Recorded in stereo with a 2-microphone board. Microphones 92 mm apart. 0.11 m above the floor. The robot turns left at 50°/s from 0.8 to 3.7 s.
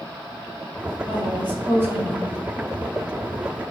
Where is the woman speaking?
10° right (ahead or behind), 1.6 m; by 2.4 s 30° right (ahead or behind), 1.6 m.